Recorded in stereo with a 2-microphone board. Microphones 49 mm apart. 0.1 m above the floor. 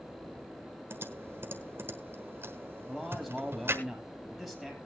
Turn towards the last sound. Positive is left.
turn(degrees=5)  # may be behind; listen again after turning